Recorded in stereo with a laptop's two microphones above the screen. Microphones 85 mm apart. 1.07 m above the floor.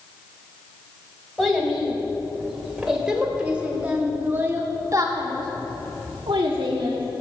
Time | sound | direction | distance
1.4 | a child speaking | centre (ahead or behind) | 3.5 m